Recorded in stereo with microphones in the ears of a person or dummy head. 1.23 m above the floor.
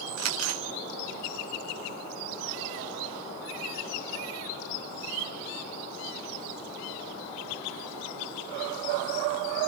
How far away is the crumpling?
About 1.5 m.